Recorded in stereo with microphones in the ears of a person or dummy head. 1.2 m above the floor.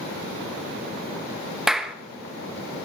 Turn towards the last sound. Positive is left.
turn(degrees=0)  # may be behind; listen again after turning